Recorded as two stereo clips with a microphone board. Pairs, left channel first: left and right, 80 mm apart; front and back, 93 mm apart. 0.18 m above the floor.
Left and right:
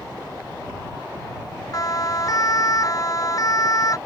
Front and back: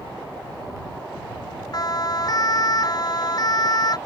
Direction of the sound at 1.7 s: 45° left.